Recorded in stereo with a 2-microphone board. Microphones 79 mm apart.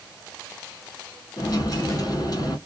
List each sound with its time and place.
1.4 s a dropped coin: 50° left (ahead or behind), 1.7 m